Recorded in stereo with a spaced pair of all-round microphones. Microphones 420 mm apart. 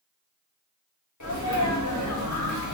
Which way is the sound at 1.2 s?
45° left (ahead or behind).